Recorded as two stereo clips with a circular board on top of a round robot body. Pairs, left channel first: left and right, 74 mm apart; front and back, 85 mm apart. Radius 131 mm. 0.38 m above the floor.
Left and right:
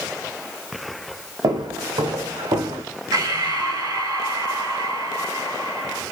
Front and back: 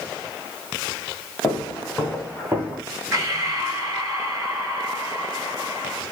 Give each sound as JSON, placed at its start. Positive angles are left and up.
{"t": 1.4, "sound": "footsteps", "azimuth_deg": -70, "distance_m": 1.5}
{"t": 3.1, "sound": "breathing", "azimuth_deg": -120, "distance_m": 1.6}